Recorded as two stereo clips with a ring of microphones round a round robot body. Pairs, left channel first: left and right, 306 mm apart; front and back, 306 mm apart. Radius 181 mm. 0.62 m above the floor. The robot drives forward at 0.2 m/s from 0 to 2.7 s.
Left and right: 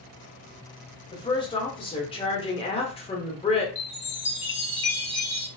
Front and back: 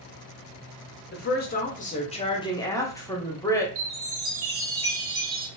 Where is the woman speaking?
25° left, 0.8 m; by 3.6 s 60° left, 0.7 m.